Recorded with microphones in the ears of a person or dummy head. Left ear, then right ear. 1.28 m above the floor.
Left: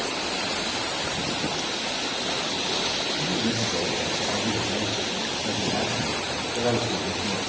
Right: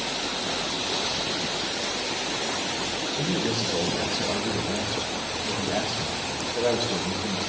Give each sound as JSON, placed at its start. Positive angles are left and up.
{"t": 3.1, "sound": "a man speaking", "side_deg": -50, "distance_m": 6.0}